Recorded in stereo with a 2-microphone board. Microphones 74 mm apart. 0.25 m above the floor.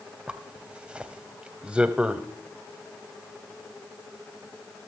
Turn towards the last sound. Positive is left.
turn(degrees=-15)  # may be behind; listen again after turning